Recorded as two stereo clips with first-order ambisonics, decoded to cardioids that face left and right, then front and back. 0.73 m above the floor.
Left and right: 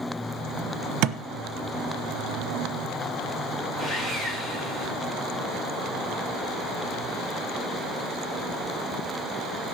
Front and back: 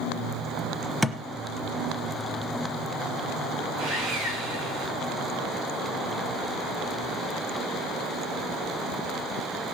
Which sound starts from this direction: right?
A thud, at 1.0 s.